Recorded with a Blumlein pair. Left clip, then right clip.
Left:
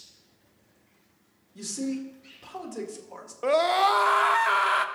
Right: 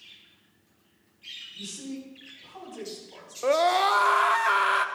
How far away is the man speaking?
About 2.5 m.